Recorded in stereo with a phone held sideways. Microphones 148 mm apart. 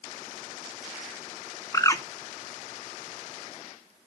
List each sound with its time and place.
1.7 s a bird: 20° left (ahead or behind), 0.6 m